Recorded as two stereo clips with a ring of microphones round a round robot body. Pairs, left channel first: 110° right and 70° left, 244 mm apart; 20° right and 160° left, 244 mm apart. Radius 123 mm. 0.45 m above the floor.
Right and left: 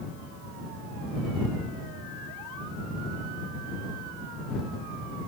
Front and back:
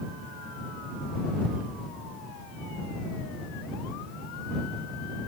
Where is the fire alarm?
I don't hear a fire alarm.